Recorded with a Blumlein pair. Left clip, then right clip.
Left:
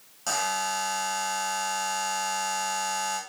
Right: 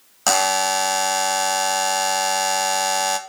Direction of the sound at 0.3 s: 55° right.